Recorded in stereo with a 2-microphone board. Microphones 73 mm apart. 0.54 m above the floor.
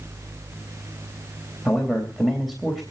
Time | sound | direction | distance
1.6 | a man speaking | centre (ahead or behind) | 3 m